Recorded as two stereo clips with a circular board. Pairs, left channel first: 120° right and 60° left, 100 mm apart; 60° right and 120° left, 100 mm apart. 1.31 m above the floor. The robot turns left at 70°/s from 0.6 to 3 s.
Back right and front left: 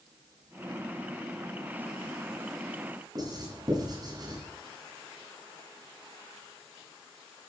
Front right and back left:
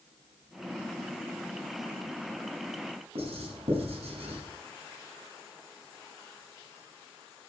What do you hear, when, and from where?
3.1 s writing: 110° left, 9 m